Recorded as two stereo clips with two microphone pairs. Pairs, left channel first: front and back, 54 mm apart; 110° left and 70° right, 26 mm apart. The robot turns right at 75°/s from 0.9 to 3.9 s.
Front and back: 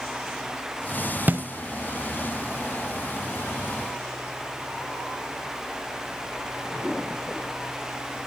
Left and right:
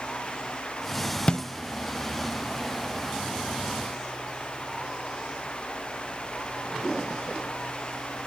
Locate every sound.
1.3 s a snare drum: 145° left, 0.8 m; by 1.4 s 160° left, 0.8 m